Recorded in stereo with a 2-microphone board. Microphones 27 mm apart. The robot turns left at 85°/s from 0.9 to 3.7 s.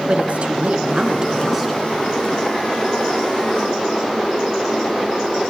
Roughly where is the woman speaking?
Behind right.